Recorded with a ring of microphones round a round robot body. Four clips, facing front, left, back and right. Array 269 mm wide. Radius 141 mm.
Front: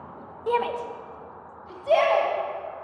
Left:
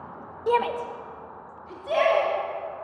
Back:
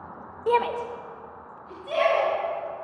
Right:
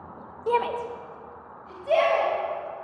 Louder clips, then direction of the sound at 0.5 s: Left 1 dB, back 2 dB; 150° left.